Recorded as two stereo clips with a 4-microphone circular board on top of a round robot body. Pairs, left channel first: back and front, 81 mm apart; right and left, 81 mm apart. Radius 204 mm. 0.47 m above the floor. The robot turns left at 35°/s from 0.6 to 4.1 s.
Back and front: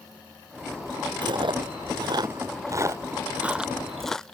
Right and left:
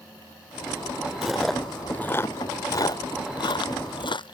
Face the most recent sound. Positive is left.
turn(degrees=-95)